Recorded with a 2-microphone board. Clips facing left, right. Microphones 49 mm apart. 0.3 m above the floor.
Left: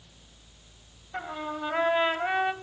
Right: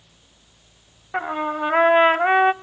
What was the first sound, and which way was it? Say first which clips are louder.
A trumpet: right 10 dB; 50° right (ahead or behind).